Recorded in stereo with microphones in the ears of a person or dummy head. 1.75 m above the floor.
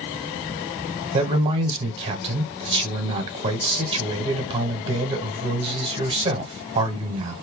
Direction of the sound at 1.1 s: 30° right (ahead or behind).